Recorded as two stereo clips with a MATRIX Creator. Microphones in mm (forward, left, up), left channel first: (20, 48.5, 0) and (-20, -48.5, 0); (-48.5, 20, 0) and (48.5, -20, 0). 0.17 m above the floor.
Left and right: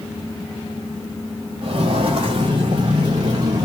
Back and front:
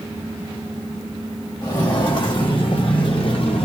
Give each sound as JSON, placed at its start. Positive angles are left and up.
{"t": 1.6, "sound": "footsteps", "azimuth_deg": -150, "distance_m": 4.0}